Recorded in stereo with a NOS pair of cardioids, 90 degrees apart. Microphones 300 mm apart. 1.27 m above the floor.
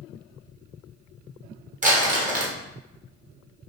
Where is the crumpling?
25° right, 1.7 m.